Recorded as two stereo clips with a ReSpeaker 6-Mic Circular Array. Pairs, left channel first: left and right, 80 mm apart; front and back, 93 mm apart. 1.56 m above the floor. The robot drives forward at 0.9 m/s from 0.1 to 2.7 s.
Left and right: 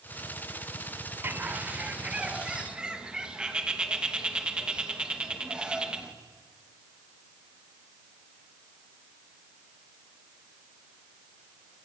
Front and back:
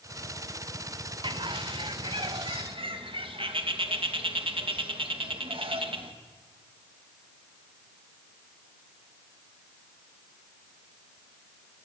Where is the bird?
150° right, 1.0 m; by 6.1 s 170° right, 2 m.